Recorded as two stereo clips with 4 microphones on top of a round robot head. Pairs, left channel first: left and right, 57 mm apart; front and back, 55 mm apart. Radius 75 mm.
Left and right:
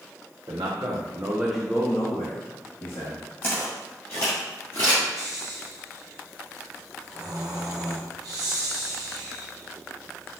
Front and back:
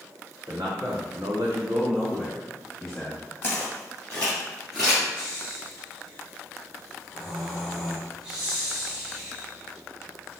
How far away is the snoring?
About 0.8 m.